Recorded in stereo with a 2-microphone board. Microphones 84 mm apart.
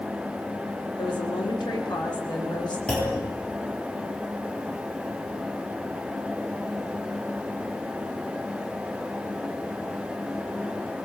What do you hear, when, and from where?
1.0 s a woman speaking: 60° left (ahead or behind), 4.5 m; by 2.8 s 55° left (ahead or behind), 5 m
2.9 s a clunk: 10° left (ahead or behind), 9 m